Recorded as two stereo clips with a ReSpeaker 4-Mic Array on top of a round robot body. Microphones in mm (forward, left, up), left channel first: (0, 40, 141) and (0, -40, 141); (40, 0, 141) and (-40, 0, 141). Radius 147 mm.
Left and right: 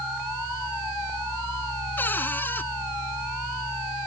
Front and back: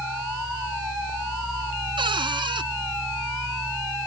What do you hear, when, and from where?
2.0 s a cupboard door: 160° left